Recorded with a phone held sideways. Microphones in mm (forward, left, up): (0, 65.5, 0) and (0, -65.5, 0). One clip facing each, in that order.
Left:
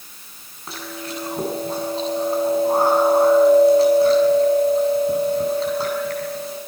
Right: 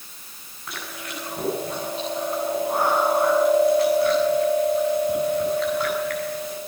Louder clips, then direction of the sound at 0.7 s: Left 4 dB; 30° left (ahead or behind).